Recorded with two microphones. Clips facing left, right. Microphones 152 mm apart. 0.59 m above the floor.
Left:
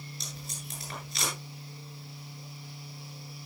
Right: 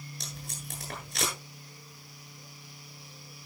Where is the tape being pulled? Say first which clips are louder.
Even; 50° right (ahead or behind), 9 m.